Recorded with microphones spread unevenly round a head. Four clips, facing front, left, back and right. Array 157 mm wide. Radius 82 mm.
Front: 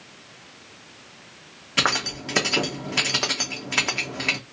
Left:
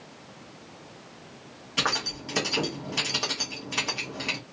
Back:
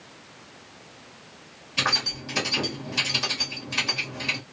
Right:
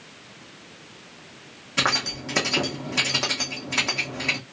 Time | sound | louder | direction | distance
1.8 | keys jangling | right 4 dB, front 3 dB | 20° right | 0.9 m